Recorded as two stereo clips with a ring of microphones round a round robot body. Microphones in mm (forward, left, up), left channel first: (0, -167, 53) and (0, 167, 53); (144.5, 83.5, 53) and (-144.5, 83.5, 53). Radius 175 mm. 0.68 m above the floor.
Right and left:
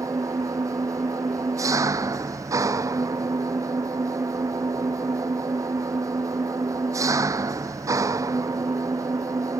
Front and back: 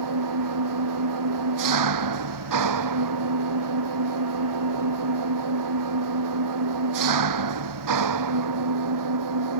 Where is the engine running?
170° left.